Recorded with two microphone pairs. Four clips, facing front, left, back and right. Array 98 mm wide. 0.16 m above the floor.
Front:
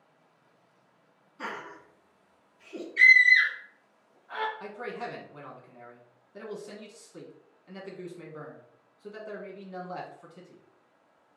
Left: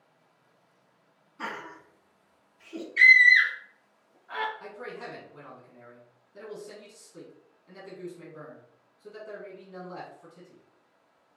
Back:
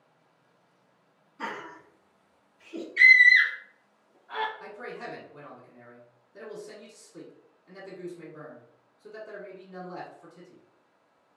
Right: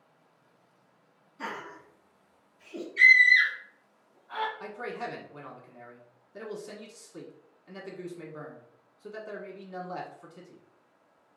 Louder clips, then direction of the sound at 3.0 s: Left 2 dB, back 2 dB; 95° left.